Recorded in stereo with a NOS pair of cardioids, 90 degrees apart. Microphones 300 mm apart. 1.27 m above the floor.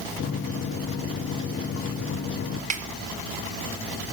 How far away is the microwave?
About 0.8 m.